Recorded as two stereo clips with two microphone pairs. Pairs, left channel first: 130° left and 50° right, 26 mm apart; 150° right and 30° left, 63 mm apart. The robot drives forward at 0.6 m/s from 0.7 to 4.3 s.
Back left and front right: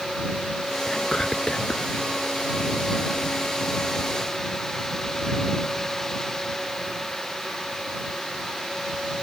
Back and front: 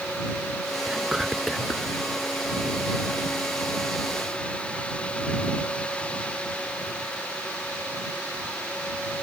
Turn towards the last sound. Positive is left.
turn(degrees=160)